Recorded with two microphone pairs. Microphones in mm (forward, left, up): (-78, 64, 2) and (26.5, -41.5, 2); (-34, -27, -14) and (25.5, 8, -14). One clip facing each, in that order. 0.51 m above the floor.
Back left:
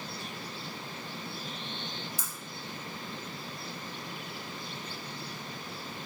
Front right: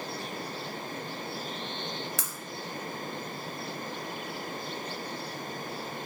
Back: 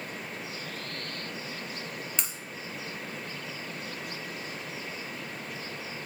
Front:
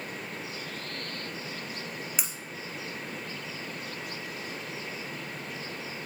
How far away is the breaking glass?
About 2 m.